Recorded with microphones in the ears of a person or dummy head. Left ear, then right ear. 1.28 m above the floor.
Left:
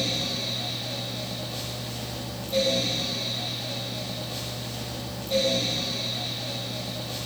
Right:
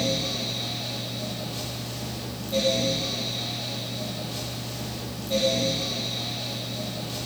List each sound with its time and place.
0.0 s a fan: 10° left (ahead or behind), 1.8 m